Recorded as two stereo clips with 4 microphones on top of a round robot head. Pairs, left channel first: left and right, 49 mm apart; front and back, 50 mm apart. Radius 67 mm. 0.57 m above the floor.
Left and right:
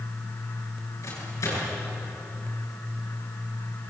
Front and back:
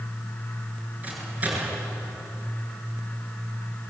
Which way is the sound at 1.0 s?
120° left.